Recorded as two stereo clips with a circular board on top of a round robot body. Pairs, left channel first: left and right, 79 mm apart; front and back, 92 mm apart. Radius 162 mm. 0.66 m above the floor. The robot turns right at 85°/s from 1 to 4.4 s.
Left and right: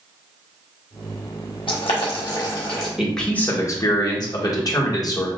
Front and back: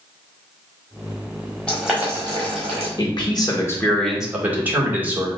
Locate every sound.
1.7 s boiling: 80° left, 1.3 m; by 2.9 s straight behind, 1.3 m
3.0 s a man speaking: 5° right, 1.7 m; by 5.3 s 115° left, 1.7 m